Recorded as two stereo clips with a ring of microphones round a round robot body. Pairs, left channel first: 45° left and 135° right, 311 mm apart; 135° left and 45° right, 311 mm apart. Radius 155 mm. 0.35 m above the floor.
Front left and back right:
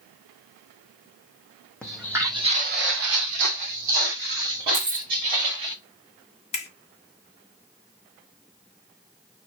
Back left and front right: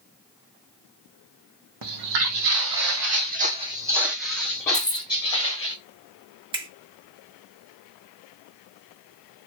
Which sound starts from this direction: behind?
Keys jangling, at 4.7 s.